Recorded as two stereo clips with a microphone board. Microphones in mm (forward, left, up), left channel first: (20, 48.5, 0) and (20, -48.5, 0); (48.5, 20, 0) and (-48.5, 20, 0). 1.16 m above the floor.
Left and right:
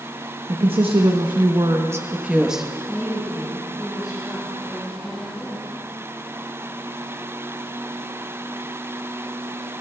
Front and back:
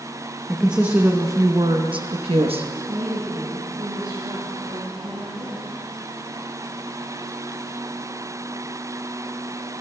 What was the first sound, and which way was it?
A woman speaking, 95° right.